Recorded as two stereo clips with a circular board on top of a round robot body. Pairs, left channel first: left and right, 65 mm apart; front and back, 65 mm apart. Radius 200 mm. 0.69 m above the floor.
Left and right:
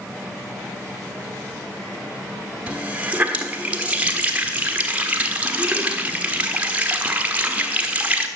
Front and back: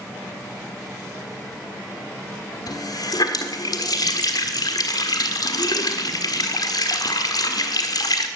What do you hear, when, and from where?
2.7 s a running tap: 20° right, 1.5 m